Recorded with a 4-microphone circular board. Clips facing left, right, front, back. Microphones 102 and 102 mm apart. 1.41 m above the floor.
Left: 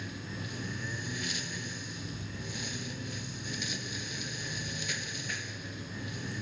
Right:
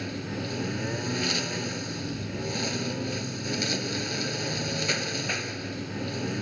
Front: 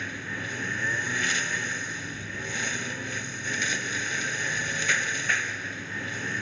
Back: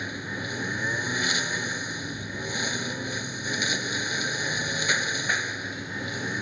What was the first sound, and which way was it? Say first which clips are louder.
A lawn mower: right 8 dB, back 2 dB; 105° right.